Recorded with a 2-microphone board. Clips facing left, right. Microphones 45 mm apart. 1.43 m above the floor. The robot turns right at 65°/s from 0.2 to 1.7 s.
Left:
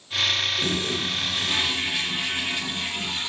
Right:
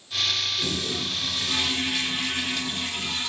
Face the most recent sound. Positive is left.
turn(degrees=145)